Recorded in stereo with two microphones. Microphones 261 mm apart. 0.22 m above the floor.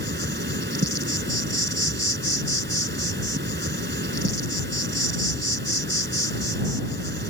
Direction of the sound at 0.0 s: 45° right (ahead or behind).